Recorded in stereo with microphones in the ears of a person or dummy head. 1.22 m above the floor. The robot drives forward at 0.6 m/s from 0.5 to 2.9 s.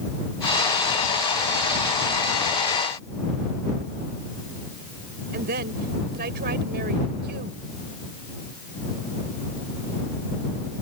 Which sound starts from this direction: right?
A woman speaking, at 5.3 s.